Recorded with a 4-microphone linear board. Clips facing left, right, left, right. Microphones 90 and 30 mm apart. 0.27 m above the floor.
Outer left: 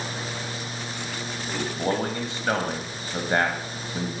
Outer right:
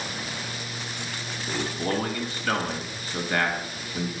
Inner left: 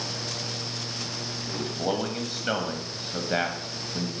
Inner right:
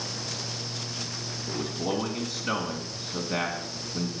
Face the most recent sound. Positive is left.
turn(degrees=25)  # may be behind; listen again after turning